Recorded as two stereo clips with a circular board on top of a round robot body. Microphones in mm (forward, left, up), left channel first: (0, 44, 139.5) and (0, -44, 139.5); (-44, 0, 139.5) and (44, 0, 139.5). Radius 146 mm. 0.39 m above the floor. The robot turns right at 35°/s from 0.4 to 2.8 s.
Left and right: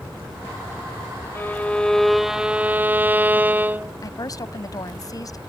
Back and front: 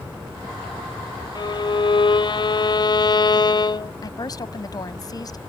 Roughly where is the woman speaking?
Behind left.